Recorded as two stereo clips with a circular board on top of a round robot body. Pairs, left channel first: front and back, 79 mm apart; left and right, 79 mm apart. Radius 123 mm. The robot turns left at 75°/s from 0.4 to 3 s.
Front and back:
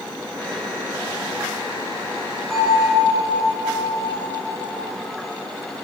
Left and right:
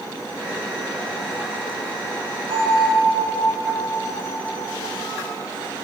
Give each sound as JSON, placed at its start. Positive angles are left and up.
{"t": 2.5, "sound": "a bell", "azimuth_deg": -90, "distance_m": 2.5}